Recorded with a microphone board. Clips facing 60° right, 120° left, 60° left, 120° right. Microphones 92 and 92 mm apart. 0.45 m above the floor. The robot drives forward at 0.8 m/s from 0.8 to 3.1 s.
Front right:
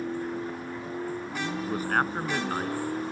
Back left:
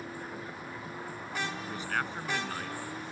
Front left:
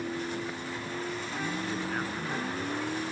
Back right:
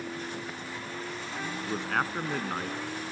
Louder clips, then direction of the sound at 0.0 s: Front right 9 dB, front left 3 dB; 15° right.